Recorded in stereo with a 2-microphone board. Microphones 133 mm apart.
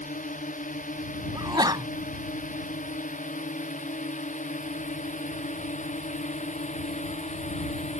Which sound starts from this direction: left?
A drone, at 0.0 s.